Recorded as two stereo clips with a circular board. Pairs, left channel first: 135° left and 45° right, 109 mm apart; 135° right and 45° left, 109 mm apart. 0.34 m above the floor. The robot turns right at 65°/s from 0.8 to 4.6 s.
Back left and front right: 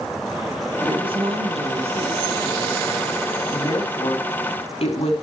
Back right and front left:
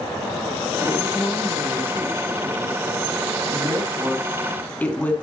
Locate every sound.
0.8 s a woman speaking: 95° right, 3 m; by 5.1 s 150° left, 3 m